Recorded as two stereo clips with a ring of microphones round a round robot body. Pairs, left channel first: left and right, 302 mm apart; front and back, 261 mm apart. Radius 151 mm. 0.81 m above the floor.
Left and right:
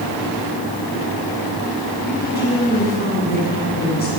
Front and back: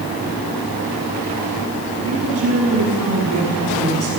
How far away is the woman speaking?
About 7 m.